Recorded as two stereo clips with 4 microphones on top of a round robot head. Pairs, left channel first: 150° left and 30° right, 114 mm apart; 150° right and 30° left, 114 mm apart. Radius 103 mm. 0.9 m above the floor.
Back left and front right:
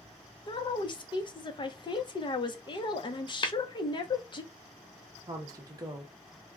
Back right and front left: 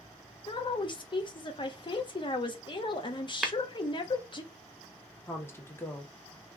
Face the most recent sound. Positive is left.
turn(degrees=-80)